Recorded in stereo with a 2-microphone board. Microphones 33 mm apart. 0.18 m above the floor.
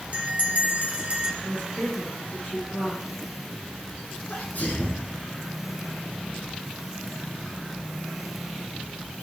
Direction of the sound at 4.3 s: 60° left (ahead or behind).